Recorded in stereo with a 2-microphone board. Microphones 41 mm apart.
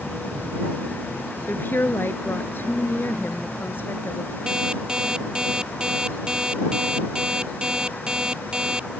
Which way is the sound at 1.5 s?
60° left (ahead or behind).